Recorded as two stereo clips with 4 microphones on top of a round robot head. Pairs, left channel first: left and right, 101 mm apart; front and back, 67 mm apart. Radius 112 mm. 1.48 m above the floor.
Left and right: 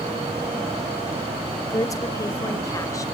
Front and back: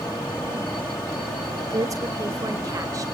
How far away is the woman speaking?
About 3.5 m.